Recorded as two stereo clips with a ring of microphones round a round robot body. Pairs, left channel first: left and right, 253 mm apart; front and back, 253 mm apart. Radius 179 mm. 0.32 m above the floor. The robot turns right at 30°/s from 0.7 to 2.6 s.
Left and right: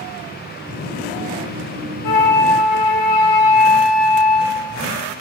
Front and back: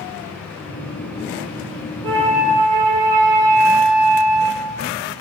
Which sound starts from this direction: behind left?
A flute, at 2.0 s.